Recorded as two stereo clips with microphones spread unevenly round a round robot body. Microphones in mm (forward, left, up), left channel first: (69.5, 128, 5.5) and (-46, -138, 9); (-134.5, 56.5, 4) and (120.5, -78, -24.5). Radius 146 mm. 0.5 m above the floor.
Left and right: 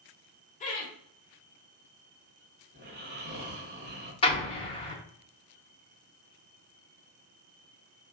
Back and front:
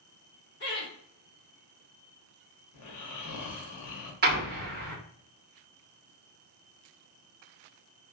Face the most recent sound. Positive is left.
turn(degrees=5)